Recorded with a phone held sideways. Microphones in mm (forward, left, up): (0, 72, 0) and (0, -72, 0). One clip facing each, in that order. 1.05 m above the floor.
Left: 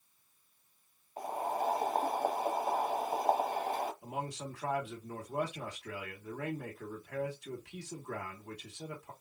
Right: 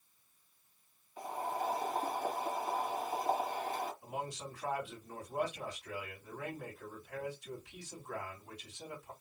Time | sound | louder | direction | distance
1.2 | boiling | left 3 dB | 40° left (ahead or behind) | 1.2 m
4.0 | a man speaking | left 2 dB | 75° left (ahead or behind) | 1.8 m